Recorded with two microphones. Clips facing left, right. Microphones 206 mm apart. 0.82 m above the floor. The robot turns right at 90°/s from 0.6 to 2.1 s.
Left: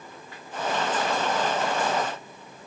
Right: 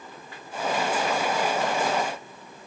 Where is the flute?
I don't hear a flute.